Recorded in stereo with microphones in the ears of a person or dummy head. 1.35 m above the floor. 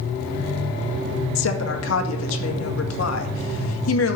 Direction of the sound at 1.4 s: 80° left.